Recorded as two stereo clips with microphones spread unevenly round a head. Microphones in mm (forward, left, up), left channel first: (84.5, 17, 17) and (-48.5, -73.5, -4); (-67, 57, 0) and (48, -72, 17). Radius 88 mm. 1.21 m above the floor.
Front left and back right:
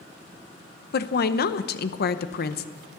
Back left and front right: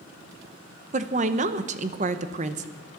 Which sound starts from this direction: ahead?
A woman speaking, at 0.9 s.